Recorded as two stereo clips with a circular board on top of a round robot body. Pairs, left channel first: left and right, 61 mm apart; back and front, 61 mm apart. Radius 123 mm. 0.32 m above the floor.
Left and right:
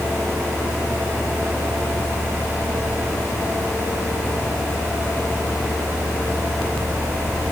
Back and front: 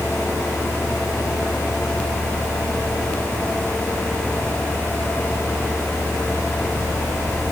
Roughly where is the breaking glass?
No breaking glass in this recording.